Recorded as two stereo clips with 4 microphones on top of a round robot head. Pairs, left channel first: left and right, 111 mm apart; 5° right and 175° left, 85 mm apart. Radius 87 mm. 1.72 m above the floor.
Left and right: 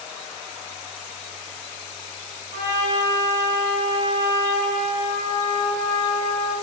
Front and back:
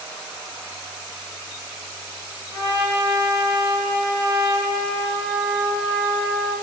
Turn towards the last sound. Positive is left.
turn(degrees=-110)